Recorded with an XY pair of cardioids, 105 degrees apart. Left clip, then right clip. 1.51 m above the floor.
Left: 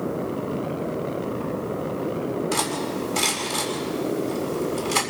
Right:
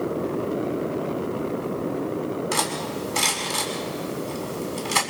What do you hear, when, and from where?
2.5 s cutlery clinking: 25° right, 7 m